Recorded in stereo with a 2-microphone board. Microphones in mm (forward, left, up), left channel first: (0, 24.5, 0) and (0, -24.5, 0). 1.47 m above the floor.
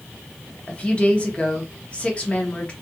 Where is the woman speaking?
25° left (ahead or behind), 0.8 m.